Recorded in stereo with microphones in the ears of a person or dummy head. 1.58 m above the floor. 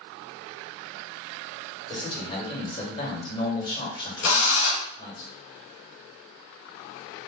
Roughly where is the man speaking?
Left.